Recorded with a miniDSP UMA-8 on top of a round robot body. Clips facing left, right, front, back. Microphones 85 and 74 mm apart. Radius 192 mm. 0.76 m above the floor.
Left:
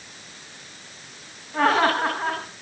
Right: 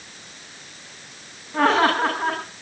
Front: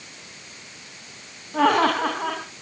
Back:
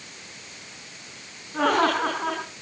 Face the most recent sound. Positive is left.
turn(degrees=5)